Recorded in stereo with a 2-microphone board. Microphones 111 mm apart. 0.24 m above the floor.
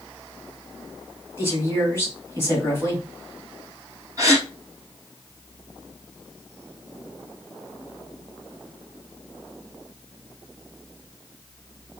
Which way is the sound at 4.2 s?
30° right (ahead or behind).